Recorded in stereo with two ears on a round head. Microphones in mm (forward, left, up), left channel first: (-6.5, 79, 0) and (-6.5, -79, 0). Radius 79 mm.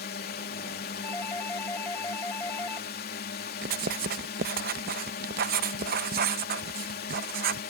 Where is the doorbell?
10° left (ahead or behind).